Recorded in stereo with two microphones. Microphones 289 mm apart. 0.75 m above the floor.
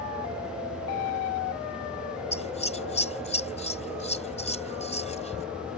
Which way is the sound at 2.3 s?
20° left (ahead or behind).